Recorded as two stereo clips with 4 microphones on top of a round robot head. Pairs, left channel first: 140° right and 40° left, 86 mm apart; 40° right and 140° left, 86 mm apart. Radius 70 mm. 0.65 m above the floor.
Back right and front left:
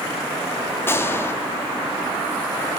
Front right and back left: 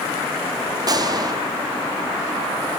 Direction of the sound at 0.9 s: 165° left.